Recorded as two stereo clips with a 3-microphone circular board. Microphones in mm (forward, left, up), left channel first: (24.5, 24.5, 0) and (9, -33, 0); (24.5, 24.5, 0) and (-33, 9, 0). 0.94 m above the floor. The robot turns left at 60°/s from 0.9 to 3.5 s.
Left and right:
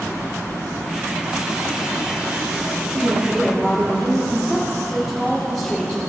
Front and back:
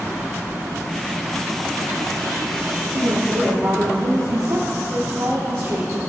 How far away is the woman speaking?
About 1.5 m.